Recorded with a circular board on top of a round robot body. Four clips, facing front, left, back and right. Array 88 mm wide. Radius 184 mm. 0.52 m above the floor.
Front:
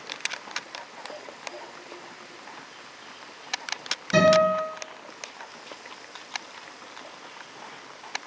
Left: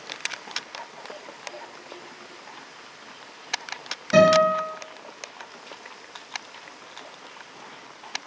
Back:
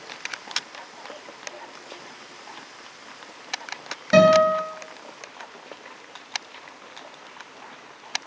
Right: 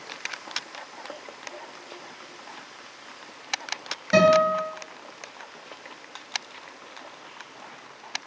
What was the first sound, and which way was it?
A guitar, 170° right.